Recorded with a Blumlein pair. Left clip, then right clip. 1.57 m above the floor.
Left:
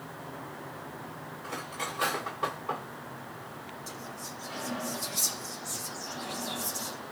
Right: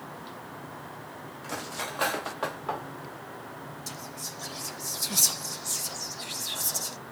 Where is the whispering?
65° right, 0.5 m.